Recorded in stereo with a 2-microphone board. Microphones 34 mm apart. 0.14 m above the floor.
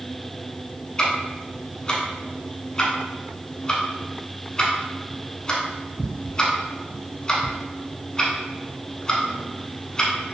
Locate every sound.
1.0 s ticking: 25° left (ahead or behind), 0.7 m